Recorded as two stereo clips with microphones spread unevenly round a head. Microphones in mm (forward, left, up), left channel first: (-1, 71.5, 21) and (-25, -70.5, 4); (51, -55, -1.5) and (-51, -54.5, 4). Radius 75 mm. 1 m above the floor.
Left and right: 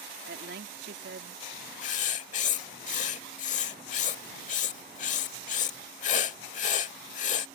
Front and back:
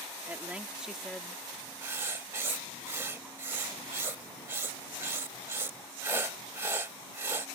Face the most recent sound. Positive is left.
turn(degrees=110)